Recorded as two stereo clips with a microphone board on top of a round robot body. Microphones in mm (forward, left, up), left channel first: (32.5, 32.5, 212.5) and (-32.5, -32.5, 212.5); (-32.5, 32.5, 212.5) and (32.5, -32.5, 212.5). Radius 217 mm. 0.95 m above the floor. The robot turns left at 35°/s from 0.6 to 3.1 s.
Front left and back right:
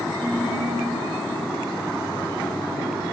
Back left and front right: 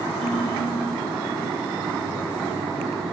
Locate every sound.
0.2 s a ringtone: 35° right, 2 m